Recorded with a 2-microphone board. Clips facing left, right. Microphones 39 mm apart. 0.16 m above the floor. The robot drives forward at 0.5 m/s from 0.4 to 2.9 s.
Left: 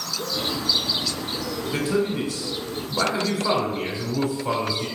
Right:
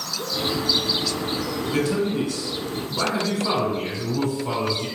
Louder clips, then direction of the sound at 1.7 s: Right 1 dB; 20° left (ahead or behind).